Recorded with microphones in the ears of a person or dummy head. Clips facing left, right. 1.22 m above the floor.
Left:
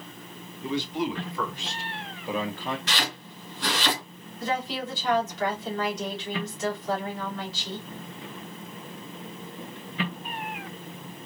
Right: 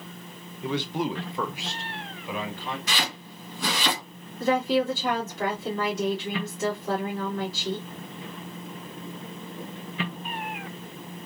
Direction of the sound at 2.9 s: 15° right (ahead or behind).